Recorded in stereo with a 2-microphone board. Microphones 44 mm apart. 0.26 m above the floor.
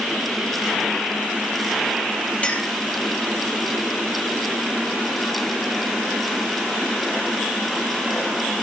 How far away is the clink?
About 4.5 m.